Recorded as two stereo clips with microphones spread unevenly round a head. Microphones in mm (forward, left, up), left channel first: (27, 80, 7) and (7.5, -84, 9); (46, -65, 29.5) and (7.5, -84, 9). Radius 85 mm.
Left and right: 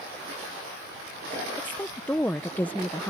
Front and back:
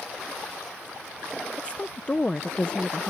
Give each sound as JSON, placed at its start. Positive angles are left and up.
{"t": 1.6, "sound": "a woman speaking", "azimuth_deg": 5}